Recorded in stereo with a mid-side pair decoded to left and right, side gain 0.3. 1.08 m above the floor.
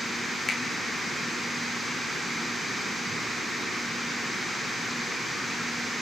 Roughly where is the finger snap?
Ahead left.